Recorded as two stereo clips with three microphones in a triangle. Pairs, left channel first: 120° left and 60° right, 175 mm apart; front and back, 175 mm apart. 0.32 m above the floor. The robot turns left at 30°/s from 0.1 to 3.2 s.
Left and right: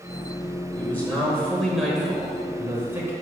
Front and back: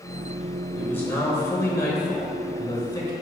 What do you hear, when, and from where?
0.8 s a man speaking: 65° left, 1.1 m; by 3.1 s 10° right, 1.1 m